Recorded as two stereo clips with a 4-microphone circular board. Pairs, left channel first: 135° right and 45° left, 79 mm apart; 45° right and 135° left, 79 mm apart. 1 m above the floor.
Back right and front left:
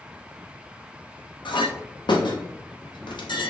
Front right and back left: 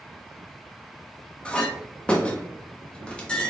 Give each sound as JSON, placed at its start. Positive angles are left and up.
{"t": 1.4, "sound": "a clink", "azimuth_deg": -120, "distance_m": 0.7}